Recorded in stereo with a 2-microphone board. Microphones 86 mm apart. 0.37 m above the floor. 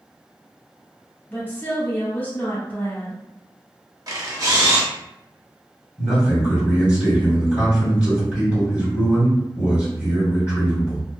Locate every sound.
1.3 s a woman speaking: 25° left (ahead or behind), 1.2 m
4.1 s a camera shutter: 45° right (ahead or behind), 0.7 m
6.0 s a man speaking: 15° right (ahead or behind), 1.5 m